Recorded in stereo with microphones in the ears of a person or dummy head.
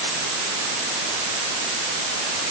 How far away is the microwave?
I don't hear a microwave.